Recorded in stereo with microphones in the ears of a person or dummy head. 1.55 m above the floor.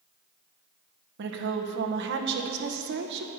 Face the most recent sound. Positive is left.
turn(degrees=-70)  # may be behind; listen again after turning